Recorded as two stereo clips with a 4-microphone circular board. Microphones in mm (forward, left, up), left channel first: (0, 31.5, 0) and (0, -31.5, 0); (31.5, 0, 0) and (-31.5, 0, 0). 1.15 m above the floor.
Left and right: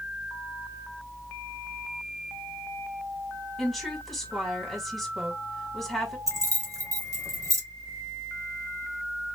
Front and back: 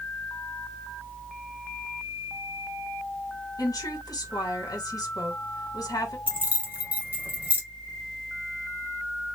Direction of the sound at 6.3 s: 115° right.